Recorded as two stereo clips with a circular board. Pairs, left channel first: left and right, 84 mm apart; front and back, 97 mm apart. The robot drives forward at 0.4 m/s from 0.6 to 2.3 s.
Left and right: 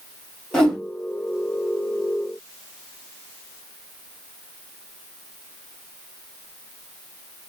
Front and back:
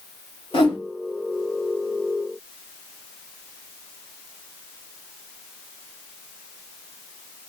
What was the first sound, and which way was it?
A whoosh, 10° left.